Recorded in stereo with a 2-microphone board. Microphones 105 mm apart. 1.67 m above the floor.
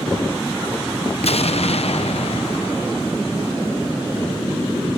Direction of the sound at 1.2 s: 70° left (ahead or behind).